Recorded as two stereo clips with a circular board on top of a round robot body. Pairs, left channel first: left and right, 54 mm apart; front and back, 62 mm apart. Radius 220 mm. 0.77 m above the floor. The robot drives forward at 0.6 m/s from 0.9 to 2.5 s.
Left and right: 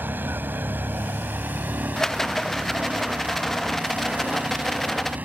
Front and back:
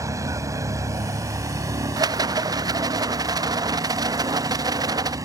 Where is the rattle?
170° left; by 5.2 s 175° left.